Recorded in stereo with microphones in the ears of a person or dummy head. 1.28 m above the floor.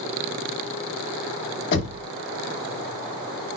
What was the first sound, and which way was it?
Knocking, 65° left (ahead or behind).